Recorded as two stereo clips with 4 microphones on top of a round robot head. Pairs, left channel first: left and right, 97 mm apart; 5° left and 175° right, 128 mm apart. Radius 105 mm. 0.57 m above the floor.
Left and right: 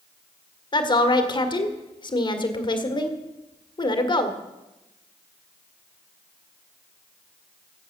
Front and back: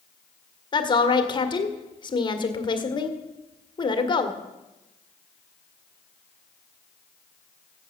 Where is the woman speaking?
55° left, 1.8 m.